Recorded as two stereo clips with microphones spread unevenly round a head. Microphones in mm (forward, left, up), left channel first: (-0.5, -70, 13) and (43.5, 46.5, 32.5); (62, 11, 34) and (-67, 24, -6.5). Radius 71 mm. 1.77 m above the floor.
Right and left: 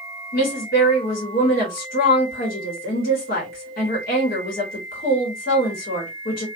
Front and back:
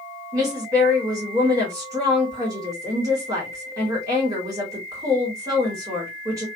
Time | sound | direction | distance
0.3 | a woman speaking | 115° right | 1.8 m